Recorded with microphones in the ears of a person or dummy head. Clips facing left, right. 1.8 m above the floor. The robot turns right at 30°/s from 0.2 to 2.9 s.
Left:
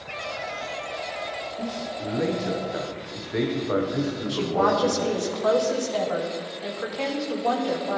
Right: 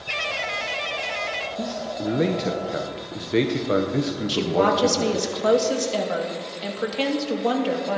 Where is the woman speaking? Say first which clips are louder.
Right 2 dB; 40° right (ahead or behind), 2.5 m.